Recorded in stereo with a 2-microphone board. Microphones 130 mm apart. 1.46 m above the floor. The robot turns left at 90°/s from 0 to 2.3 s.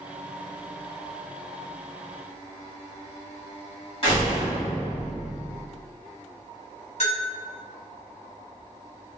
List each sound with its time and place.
4.0 s a door slam: 45° left (ahead or behind), 1.8 m
7.0 s a bell: 55° left (ahead or behind), 1.2 m